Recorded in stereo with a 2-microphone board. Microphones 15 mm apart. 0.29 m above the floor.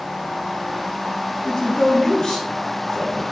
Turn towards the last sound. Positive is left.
turn(degrees=55)  # may be behind; listen again after turning